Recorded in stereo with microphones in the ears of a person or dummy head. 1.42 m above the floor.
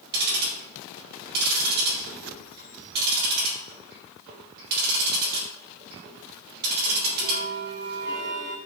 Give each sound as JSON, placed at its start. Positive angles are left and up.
{"t": 0.1, "sound": "ticking", "side_deg": -45, "distance_m": 3.5}